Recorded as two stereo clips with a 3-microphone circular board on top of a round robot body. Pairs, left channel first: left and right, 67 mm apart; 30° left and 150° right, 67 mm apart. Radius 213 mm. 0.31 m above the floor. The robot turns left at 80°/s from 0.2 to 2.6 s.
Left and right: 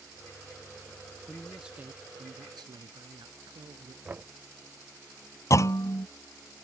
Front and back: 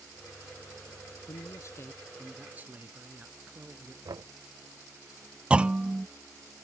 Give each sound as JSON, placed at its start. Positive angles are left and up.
{"t": 1.3, "sound": "a man speaking", "azimuth_deg": 20}
{"t": 4.0, "sound": "knocking", "azimuth_deg": -155}
{"t": 5.5, "sound": "a clunk", "azimuth_deg": 135}